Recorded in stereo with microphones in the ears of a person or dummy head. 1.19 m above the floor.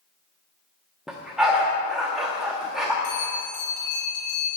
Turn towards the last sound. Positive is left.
turn(degrees=50)  # may be behind; listen again after turning